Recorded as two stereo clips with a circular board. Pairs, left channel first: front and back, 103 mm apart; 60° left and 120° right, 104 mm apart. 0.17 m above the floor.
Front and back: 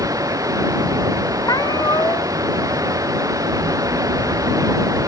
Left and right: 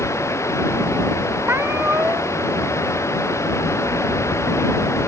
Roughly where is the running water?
Behind left.